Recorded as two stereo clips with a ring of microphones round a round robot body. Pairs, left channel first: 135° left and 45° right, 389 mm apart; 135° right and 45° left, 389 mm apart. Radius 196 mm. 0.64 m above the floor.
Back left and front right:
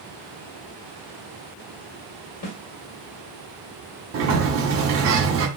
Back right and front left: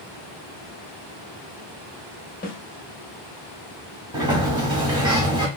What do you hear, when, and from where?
2.4 s a snare drum: 160° left, 0.9 m
4.1 s a sliding door: 25° right, 0.9 m